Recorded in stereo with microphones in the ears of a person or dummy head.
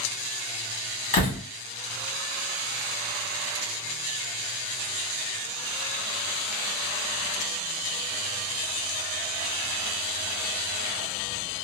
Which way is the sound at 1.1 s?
35° left (ahead or behind).